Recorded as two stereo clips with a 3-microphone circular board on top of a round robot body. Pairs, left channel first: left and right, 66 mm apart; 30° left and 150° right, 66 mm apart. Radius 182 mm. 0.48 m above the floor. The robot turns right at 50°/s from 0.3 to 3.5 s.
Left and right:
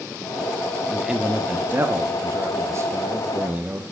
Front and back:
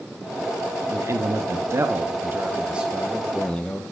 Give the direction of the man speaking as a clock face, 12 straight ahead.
6 o'clock.